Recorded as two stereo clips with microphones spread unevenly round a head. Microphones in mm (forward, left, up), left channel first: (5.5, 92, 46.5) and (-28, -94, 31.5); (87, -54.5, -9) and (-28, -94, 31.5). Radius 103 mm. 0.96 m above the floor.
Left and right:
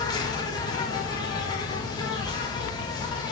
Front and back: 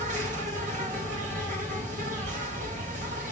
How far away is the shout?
No shout in this recording.